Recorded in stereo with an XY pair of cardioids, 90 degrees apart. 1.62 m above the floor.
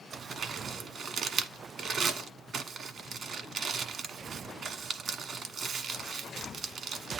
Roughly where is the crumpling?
Ahead right.